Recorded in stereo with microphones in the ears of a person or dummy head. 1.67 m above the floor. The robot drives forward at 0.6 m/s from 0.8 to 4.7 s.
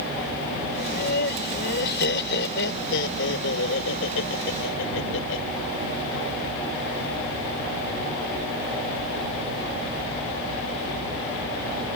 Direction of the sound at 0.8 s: 55° left (ahead or behind).